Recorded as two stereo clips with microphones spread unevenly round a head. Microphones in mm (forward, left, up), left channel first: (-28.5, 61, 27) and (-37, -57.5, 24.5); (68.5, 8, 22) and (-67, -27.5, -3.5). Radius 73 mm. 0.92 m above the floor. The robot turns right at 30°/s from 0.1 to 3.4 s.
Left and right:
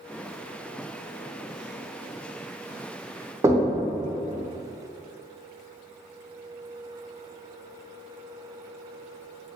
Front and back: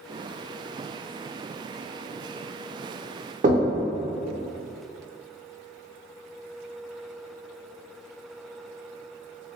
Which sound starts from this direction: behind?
Knocking, at 3.4 s.